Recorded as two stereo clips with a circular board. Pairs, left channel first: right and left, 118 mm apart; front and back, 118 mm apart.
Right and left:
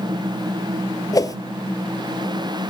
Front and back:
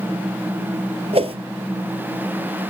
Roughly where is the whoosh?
Behind right.